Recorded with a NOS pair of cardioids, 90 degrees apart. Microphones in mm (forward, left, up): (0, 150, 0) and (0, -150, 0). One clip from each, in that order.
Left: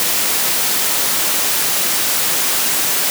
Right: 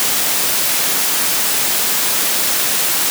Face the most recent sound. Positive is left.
No sound to turn to.